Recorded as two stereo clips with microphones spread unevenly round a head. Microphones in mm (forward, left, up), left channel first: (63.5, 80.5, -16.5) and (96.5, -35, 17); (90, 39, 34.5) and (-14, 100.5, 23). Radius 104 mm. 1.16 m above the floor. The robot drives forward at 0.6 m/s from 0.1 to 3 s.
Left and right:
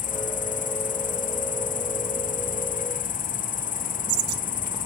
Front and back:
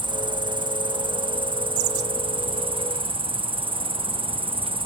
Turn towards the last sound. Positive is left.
turn(degrees=105)